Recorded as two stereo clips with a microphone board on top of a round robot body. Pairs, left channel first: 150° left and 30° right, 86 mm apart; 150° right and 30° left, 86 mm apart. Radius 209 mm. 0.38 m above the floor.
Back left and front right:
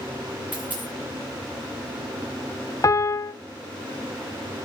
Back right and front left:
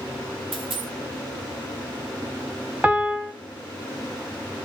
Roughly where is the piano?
Left.